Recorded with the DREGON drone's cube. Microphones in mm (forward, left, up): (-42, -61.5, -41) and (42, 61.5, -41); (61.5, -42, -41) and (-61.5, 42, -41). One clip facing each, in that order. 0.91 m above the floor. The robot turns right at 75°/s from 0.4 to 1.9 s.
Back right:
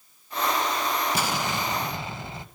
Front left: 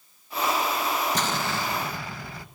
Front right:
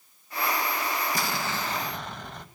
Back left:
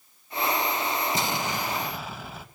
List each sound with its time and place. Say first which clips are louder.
1.1 s an explosion: even, back left 2 dB; 165° left, 0.7 m; by 2.5 s 140° right, 0.7 m